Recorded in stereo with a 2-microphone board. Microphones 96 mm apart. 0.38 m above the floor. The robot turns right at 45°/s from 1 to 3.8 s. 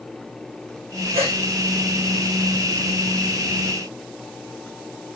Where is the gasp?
80° right, 7.5 m; by 1.4 s 90° right, 7.5 m.